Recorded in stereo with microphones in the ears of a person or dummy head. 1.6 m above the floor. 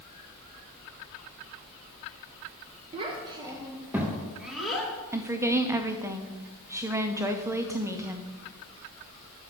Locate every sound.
2.9 s a child speaking: 35° right (ahead or behind), 1.2 m; by 4.9 s centre (ahead or behind), 1.9 m
5.1 s a woman speaking: 10° right (ahead or behind), 0.7 m